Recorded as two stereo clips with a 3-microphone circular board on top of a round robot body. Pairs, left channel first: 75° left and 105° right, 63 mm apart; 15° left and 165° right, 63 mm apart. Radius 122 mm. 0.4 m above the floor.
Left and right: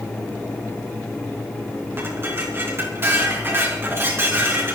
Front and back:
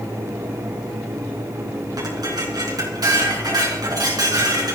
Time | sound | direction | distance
2.0 | dishes clattering | 160° right | 4.5 m